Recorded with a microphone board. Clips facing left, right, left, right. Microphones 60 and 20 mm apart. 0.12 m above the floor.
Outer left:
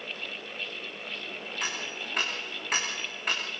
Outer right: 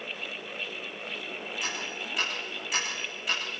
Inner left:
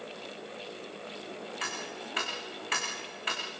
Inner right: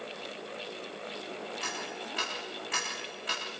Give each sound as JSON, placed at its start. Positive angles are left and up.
{"t": 1.6, "sound": "ticking", "side_deg": 45, "distance_m": 7.5}